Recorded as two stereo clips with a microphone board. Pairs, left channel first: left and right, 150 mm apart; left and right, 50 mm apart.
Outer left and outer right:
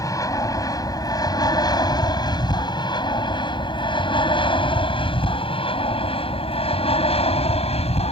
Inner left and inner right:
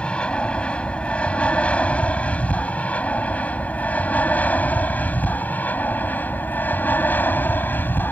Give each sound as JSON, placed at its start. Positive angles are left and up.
{"t": 0.0, "sound": "an aircraft", "side_deg": 25}